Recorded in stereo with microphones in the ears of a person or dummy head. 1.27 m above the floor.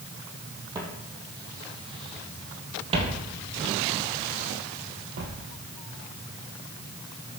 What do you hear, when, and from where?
0.8 s footsteps: 25° right (ahead or behind), 3 m; by 5.3 s 55° right (ahead or behind), 2 m